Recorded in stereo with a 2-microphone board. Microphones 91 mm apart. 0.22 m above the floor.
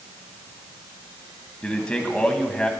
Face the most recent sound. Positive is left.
turn(degrees=10)  # may be behind; listen again after turning